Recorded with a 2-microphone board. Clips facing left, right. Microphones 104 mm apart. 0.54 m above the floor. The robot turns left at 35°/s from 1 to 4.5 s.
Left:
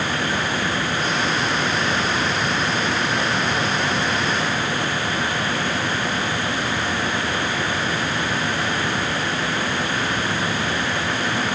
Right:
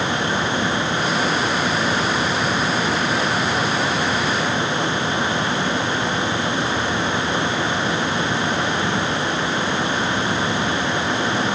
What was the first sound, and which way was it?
Only background noise.